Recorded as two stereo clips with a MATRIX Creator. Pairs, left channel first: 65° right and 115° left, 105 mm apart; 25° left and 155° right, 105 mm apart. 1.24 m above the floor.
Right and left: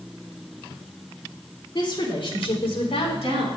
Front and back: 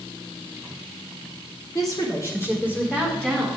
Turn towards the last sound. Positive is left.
turn(degrees=-60)